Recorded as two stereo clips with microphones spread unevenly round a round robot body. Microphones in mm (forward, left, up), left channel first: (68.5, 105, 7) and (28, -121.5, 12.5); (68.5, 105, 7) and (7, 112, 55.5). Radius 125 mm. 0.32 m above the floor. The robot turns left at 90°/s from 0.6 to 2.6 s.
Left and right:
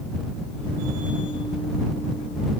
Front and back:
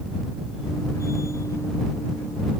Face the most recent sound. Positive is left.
No sound to turn to.